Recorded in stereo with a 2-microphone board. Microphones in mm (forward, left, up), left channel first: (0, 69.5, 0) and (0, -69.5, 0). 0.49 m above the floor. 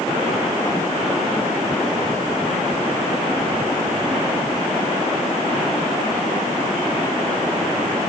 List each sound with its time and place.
Only background noise.